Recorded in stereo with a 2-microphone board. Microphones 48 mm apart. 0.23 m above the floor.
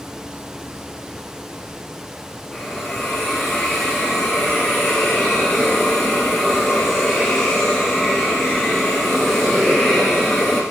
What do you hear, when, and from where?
2.5 s a hiss: 5° left (ahead or behind), 5 m